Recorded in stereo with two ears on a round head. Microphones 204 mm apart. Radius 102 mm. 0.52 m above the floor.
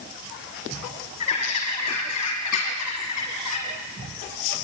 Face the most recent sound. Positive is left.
turn(degrees=80)